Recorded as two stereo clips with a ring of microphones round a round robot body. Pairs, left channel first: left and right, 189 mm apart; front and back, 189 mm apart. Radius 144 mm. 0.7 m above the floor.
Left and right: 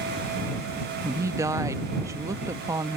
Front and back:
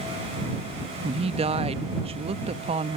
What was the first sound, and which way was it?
A woman speaking, 155° right.